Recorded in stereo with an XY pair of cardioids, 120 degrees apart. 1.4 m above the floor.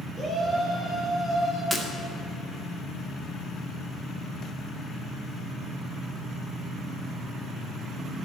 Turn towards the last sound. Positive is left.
turn(degrees=-5)